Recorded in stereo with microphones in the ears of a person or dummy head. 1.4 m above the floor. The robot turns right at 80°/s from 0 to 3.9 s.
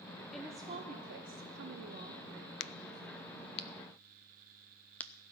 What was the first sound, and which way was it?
A woman speaking, straight behind.